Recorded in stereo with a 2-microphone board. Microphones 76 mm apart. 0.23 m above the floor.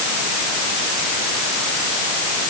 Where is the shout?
No shout in this recording.